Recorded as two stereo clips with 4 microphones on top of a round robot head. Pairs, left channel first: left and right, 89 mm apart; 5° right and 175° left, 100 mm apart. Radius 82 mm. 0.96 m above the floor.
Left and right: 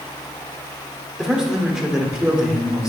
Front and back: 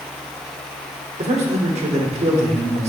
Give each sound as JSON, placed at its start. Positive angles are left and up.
{"t": 1.2, "sound": "a man speaking", "azimuth_deg": -175, "distance_m": 2.5}